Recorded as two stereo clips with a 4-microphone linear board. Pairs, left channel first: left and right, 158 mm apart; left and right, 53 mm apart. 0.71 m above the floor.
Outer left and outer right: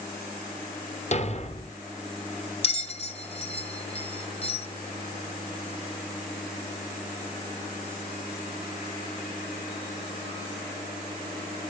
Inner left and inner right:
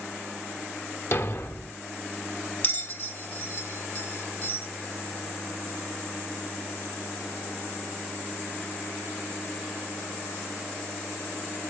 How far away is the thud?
About 1.0 m.